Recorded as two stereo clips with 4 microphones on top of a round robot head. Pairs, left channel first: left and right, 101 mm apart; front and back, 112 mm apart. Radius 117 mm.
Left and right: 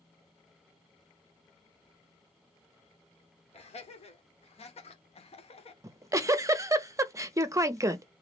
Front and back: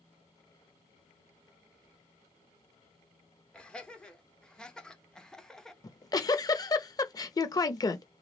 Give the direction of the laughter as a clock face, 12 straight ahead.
9 o'clock.